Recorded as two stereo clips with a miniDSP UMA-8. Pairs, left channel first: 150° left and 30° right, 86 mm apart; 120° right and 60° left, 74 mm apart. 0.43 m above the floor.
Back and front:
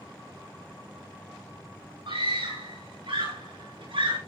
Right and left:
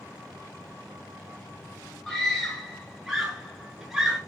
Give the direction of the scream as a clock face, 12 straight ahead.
1 o'clock.